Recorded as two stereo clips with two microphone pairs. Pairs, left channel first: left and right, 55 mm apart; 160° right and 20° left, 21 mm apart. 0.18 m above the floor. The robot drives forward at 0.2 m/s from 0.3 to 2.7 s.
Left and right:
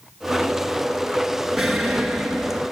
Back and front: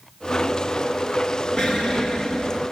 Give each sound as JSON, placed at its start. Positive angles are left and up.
{"t": 1.6, "sound": "an explosion", "azimuth_deg": -175, "distance_m": 2.5}